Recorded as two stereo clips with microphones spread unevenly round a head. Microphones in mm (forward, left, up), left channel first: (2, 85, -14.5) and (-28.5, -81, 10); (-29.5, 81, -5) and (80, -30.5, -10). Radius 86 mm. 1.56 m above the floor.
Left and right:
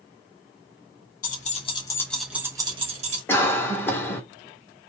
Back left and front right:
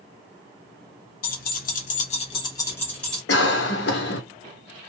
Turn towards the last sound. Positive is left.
turn(degrees=160)